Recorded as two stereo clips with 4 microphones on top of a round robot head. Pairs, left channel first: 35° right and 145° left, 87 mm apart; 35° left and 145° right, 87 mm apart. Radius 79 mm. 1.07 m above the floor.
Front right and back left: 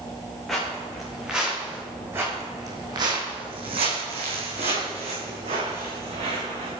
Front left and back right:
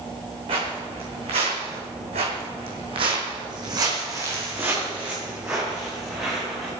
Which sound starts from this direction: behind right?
Footsteps, at 0.5 s.